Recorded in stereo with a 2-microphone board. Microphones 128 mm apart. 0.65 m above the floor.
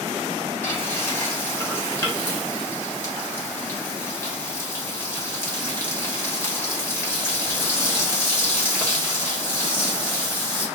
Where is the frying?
20° left (ahead or behind), 1.1 m.